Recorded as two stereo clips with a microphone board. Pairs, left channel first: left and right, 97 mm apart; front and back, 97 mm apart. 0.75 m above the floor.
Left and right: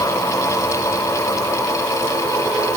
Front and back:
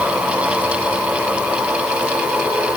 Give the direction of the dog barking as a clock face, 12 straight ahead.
I don't hear a dog barking.